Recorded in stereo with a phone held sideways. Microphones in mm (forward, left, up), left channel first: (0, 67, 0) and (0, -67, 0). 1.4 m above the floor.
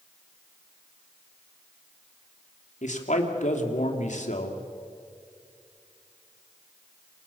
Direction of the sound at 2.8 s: 65° left (ahead or behind).